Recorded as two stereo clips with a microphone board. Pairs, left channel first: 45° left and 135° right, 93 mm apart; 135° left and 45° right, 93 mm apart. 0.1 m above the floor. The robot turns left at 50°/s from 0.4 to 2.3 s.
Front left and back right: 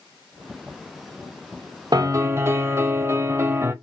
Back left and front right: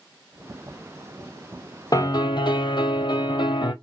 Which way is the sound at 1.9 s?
175° right.